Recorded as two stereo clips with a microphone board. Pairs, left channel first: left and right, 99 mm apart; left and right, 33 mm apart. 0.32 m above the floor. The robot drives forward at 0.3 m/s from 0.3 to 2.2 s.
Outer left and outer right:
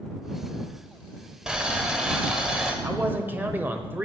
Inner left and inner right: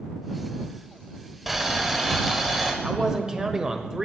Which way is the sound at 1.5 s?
10° right (ahead or behind).